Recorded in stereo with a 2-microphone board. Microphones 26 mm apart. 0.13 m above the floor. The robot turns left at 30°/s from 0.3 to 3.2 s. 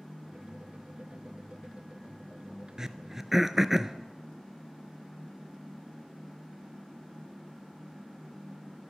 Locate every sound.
2.8 s throat clearing: 25° right (ahead or behind), 0.8 m; by 4.0 s 15° right (ahead or behind), 0.8 m